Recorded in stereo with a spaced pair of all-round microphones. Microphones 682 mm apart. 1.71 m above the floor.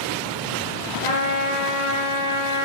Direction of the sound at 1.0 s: 45° left (ahead or behind).